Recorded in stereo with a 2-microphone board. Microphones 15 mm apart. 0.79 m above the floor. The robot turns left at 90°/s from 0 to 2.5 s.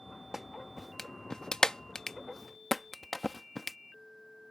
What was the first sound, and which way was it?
A clap, 25° right (ahead or behind).